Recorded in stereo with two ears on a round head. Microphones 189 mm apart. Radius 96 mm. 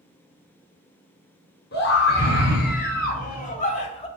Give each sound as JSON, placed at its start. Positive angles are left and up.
{"t": 1.7, "sound": "a scream", "side_deg": 55, "distance_m": 4.5}